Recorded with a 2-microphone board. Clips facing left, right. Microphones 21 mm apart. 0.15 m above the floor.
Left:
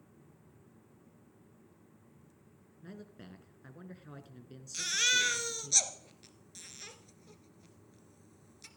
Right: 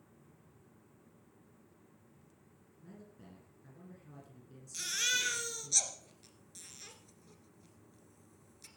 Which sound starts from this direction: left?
A man speaking, at 2.8 s.